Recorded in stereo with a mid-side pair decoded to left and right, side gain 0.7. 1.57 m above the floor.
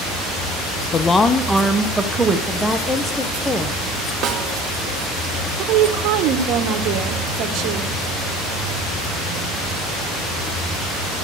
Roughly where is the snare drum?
Ahead right.